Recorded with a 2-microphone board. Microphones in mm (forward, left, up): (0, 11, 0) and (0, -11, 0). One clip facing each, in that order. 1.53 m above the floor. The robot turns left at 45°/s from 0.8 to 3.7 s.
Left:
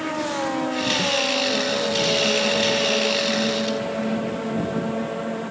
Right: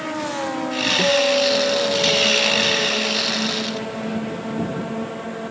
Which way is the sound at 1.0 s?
120° right.